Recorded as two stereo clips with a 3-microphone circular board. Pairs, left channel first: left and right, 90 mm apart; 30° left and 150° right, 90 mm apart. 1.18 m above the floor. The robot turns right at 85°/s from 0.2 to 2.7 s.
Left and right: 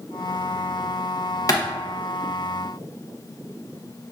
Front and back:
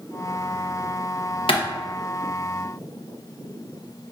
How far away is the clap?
About 0.9 m.